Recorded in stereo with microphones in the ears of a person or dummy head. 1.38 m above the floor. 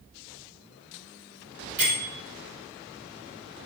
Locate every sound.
1.8 s a bell: 15° right (ahead or behind), 3 m